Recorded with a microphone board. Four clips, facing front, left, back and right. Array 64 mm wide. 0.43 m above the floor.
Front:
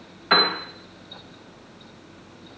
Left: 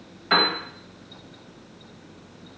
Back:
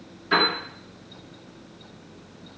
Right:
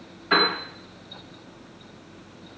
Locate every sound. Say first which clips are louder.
0.3 s a piano: even, front 2 dB; 20° left, 0.8 m